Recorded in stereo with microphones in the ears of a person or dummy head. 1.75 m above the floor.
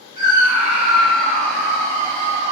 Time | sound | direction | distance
0.2 | a scream | 20° right (ahead or behind) | 1.1 m